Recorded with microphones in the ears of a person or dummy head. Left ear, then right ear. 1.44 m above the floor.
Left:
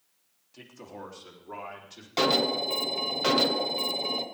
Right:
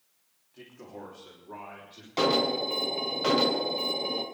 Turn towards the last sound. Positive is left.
turn(degrees=20)  # may be behind; listen again after turning